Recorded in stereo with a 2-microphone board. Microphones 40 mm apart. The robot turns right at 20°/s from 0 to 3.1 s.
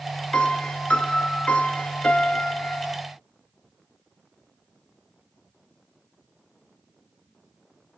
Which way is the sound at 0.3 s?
60° left.